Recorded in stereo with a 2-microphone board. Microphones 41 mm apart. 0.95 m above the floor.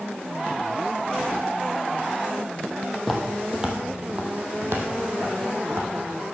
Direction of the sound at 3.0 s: Centre (ahead or behind).